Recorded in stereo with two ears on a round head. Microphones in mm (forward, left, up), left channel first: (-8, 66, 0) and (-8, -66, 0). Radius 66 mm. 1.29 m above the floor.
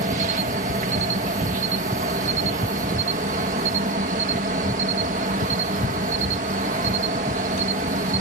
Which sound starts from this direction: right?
An insect, at 0.0 s.